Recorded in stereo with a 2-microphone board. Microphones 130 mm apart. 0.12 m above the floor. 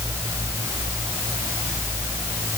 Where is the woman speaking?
I don't hear a woman speaking.